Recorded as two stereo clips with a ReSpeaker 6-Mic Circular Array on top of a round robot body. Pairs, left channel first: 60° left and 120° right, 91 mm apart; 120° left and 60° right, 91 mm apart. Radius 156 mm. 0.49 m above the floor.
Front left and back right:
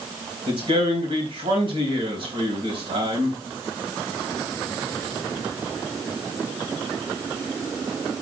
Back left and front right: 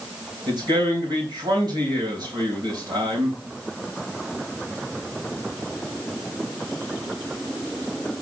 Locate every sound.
0.5 s a man speaking: 100° right, 3.5 m